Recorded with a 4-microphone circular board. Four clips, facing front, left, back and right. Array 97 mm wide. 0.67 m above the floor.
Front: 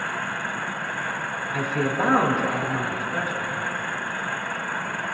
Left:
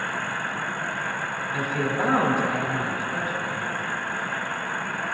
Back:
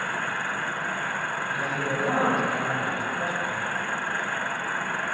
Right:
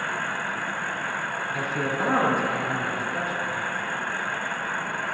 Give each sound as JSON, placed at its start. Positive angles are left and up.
{"t": 1.5, "sound": "a man speaking", "azimuth_deg": 35, "distance_m": 6.5}